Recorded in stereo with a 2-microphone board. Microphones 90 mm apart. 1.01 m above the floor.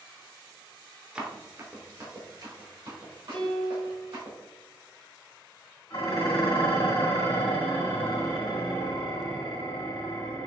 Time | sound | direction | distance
1.1 | running footsteps | 15° right (ahead or behind) | 1.0 m
3.3 | a piano | 15° left (ahead or behind) | 1.0 m
5.9 | dishes clattering | 60° left (ahead or behind) | 1.8 m